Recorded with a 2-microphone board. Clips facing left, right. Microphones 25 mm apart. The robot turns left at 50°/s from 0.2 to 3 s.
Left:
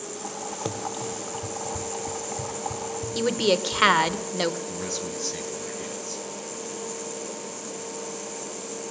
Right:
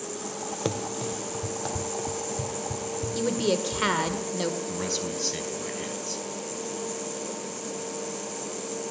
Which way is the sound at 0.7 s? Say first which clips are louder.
Right 2 dB; 20° right (ahead or behind).